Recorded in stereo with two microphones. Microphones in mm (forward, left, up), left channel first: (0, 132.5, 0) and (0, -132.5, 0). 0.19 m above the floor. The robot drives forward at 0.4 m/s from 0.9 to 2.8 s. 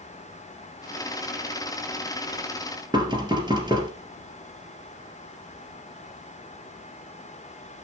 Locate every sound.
2.9 s knocking: 15° right (ahead or behind), 2.5 m